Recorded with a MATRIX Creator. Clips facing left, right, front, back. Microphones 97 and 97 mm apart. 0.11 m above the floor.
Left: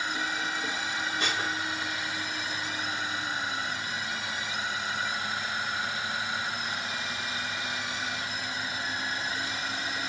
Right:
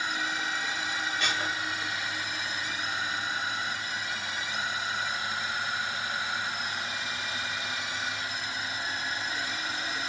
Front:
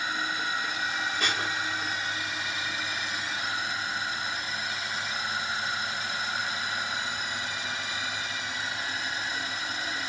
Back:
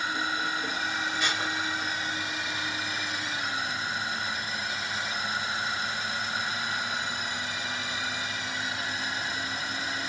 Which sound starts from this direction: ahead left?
Dishes clattering, at 1.2 s.